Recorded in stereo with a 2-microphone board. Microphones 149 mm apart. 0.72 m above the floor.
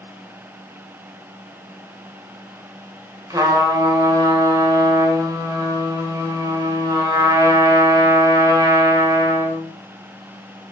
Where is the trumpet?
25° right (ahead or behind), 1.9 m.